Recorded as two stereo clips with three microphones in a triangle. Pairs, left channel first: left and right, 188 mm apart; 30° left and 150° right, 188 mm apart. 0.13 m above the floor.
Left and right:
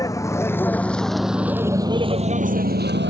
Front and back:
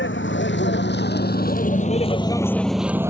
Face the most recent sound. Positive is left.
turn(degrees=-75)